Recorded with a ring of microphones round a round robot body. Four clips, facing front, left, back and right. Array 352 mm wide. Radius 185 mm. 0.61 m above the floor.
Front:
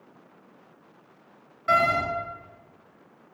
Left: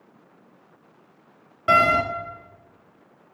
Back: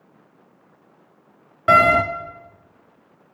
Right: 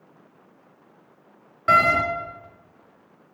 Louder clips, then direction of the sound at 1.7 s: Even, back 8 dB; 170° left.